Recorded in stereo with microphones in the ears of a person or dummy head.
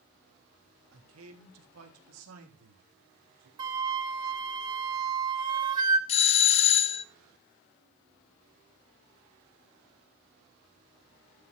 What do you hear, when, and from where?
0.9 s a man speaking: 85° right, 3.5 m; by 3.5 s 75° right (ahead or behind), 4.5 m
3.6 s a flute: 25° right (ahead or behind), 1.2 m
6.1 s a doorbell: 35° left (ahead or behind), 0.6 m